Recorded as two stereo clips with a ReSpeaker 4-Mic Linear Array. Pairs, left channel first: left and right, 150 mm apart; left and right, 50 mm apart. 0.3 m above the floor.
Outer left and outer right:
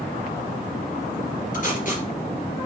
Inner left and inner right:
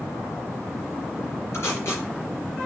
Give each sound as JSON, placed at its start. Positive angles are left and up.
{"t": 1.5, "sound": "tape being pulled", "side_deg": 60, "distance_m": 3.5}